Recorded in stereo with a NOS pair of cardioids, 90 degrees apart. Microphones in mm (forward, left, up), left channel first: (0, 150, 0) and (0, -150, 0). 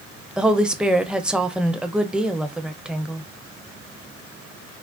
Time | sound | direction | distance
0.4 | a woman speaking | 5° right | 0.5 m